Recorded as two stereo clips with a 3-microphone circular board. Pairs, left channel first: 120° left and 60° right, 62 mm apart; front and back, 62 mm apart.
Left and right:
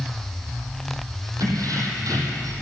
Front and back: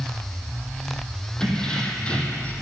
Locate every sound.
1.4 s keys jangling: 75° right, 3.5 m; by 2.5 s 65° right, 3.5 m